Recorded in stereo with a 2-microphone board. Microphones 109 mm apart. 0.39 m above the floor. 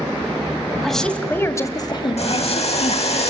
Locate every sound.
0.8 s a woman speaking: centre (ahead or behind), 2.5 m; by 3.2 s 70° left (ahead or behind), 3 m
2.2 s boiling: 80° left, 7 m